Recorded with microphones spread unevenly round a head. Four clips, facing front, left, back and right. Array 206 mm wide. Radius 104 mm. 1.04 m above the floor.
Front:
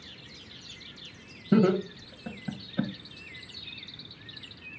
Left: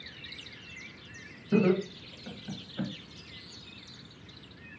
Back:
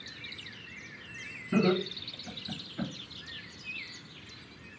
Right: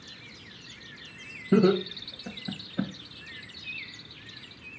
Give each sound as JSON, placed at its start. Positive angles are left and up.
{"t": 1.5, "sound": "laughter", "azimuth_deg": -35, "distance_m": 1.0}